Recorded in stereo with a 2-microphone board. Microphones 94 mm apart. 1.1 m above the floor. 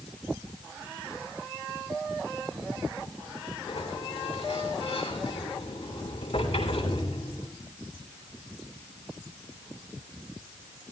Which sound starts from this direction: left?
A sliding door, at 3.7 s.